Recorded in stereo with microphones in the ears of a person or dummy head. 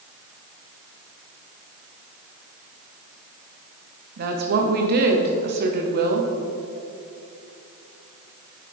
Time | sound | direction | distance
4.2 | a woman speaking | 50° right (ahead or behind) | 0.7 m